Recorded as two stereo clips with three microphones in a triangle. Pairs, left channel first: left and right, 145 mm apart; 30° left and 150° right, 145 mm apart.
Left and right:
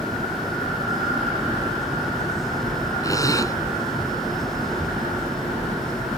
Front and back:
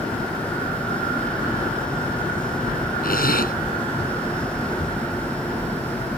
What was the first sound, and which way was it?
A zipper, 25° left.